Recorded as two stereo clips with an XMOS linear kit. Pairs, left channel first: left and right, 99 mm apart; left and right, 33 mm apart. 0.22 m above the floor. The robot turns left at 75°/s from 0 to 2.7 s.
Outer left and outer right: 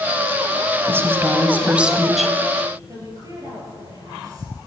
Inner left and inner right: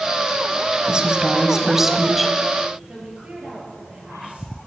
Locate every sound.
0.9 s a woman speaking: 20° right (ahead or behind), 1.5 m; by 2.4 s 5° left (ahead or behind), 1.5 m
2.9 s a woman speaking: 35° right (ahead or behind), 5.5 m